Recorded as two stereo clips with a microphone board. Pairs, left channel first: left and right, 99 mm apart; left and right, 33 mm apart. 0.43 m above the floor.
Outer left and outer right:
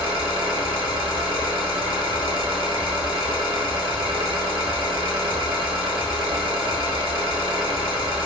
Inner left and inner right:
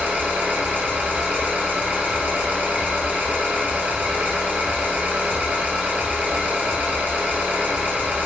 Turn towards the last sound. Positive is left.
turn(degrees=-60)  # may be behind; listen again after turning